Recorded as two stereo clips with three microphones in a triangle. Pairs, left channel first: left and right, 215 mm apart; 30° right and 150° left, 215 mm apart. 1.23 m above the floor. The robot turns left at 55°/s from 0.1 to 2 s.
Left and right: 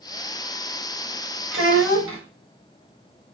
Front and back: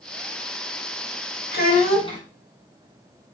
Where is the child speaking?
70° right, 1.2 m; by 2.2 s 100° right, 1.2 m.